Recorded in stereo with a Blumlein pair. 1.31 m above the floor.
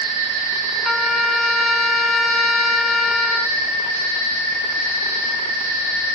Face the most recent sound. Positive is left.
turn(degrees=10)